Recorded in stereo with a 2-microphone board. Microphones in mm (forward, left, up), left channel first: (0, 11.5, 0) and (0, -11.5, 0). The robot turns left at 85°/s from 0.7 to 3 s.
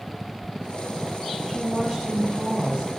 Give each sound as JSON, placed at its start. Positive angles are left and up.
{"t": 1.5, "sound": "a woman speaking", "azimuth_deg": -15, "distance_m": 3.0}